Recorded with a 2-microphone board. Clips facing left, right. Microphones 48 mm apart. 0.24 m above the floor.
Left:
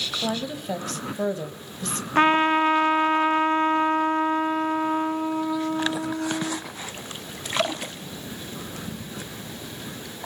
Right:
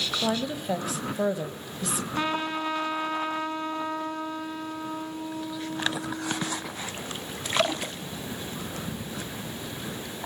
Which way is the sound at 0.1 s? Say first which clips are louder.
Right 1 dB; 5° right (ahead or behind).